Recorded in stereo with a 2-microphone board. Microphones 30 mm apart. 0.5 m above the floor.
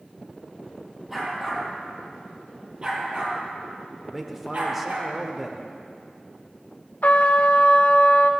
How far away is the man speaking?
About 1.3 m.